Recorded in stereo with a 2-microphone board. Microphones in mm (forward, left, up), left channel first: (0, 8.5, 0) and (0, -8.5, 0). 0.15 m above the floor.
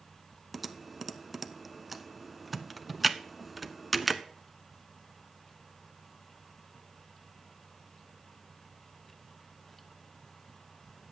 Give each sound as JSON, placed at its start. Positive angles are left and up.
{"t": 0.5, "sound": "typing on a keyboard", "side_deg": -5, "distance_m": 0.6}